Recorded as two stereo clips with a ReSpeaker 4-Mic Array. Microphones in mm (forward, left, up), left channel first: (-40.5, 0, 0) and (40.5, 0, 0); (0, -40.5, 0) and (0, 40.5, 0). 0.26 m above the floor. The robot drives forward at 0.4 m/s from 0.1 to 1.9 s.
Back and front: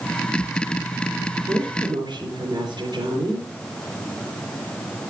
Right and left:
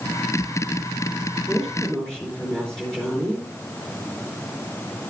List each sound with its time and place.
1.5 s a woman speaking: 10° right, 4.5 m